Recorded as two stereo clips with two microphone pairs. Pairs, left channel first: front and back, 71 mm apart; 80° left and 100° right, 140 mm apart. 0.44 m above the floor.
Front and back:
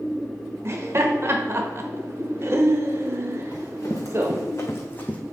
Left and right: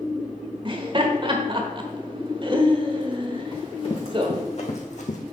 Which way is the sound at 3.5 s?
30° left.